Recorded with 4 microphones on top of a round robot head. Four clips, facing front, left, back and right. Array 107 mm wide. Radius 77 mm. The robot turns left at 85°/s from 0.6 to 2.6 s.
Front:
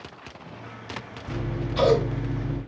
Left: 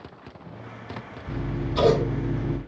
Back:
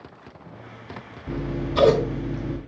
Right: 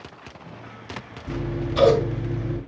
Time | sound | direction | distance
1.3 | scissors | 155° right | 2.0 m